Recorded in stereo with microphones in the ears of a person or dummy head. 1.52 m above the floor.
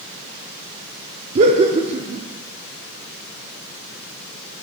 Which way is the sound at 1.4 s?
30° right (ahead or behind).